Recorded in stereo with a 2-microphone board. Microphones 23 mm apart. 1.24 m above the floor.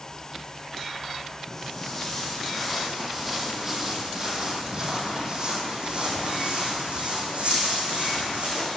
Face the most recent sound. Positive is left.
turn(degrees=-65)  # may be behind; listen again after turning